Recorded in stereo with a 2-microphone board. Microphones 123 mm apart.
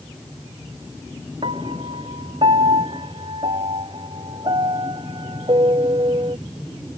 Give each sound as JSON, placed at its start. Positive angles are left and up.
{"t": 1.4, "sound": "a piano", "side_deg": -50}